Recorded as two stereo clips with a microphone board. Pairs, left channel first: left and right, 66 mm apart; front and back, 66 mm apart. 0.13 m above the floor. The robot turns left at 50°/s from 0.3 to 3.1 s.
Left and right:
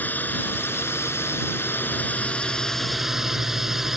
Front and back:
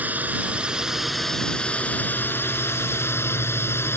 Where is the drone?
130° left; by 4.0 s 10° right.